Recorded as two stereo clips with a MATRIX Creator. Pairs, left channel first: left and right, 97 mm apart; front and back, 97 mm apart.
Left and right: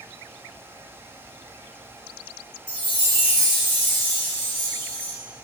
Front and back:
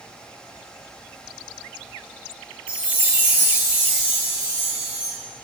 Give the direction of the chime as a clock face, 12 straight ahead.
8 o'clock.